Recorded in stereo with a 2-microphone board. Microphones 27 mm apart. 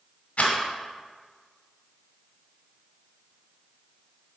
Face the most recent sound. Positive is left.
turn(degrees=65)  # may be behind; listen again after turning